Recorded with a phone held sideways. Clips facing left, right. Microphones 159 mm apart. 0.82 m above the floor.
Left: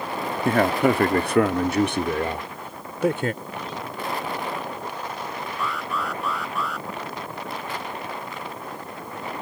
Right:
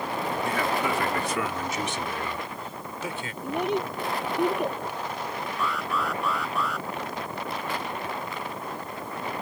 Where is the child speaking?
65° right (ahead or behind).